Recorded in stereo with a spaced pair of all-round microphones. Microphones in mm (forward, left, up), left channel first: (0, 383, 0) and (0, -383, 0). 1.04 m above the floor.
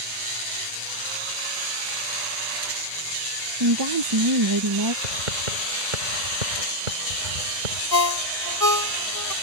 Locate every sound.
3.6 s a woman speaking: 30° right (ahead or behind)
5.0 s writing: 85° right
7.9 s a ringtone: 30° left (ahead or behind)